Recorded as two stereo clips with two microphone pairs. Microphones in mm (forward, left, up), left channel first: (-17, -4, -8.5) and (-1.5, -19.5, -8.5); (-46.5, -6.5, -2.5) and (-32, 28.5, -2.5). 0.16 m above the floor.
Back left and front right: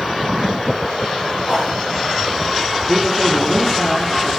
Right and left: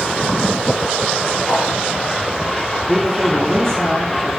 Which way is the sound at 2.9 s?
75° left.